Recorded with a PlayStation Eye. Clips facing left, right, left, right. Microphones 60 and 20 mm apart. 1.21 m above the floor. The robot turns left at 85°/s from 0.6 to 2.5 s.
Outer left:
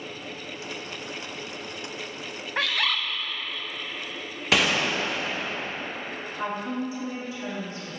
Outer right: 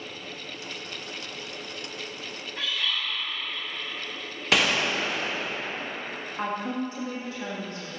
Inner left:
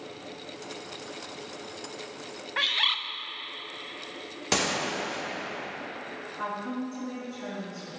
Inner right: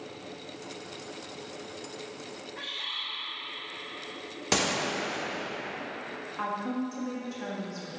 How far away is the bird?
About 0.6 m.